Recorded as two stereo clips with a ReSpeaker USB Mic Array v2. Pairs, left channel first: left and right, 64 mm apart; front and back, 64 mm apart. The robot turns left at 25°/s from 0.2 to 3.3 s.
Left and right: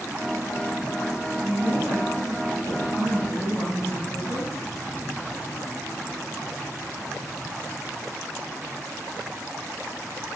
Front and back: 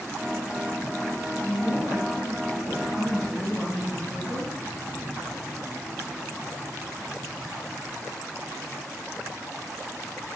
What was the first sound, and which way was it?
A woman speaking, 85° left.